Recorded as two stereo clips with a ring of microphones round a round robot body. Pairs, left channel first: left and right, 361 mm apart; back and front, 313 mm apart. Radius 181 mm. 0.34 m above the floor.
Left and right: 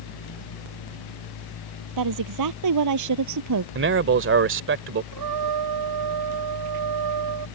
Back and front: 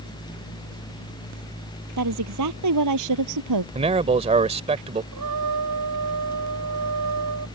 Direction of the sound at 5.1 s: 50° right.